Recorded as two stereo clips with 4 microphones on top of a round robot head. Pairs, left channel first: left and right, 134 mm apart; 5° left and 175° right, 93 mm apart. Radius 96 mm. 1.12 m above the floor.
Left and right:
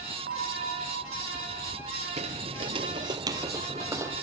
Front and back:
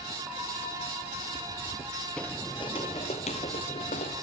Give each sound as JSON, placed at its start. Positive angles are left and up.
{"t": 0.3, "sound": "a bell", "azimuth_deg": -90, "distance_m": 2.5}
{"t": 2.2, "sound": "footsteps", "azimuth_deg": -80, "distance_m": 1.3}